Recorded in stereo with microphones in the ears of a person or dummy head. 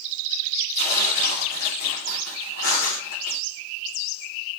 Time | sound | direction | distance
0.8 | tearing paper | 50° left (ahead or behind) | 3.5 m
2.6 | breathing | 55° left (ahead or behind) | 2.5 m